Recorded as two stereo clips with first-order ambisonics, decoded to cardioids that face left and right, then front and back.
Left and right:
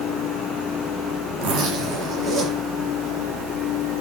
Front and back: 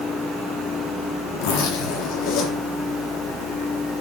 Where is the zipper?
35° right, 4.5 m.